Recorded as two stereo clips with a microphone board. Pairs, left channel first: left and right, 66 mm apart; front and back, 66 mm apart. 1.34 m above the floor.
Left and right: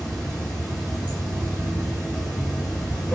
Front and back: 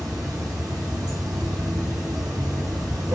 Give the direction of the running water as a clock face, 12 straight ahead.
7 o'clock.